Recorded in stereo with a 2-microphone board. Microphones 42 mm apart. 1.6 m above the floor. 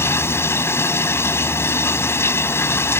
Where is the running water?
85° left.